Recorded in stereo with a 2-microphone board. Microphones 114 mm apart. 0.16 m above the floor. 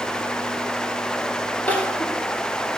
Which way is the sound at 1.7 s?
15° left (ahead or behind).